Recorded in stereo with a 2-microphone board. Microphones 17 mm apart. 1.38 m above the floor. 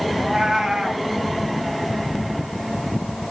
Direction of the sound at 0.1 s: 50° right (ahead or behind).